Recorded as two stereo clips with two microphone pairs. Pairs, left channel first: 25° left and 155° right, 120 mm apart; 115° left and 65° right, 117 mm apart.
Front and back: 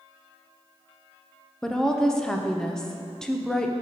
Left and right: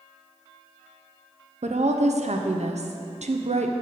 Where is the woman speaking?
55° right, 0.6 m.